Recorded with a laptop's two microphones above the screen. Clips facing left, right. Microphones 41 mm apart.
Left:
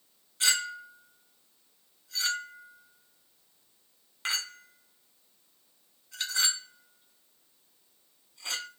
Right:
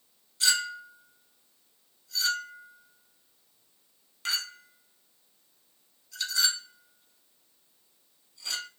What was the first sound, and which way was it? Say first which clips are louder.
A clink: right 1 dB; 35° left (ahead or behind).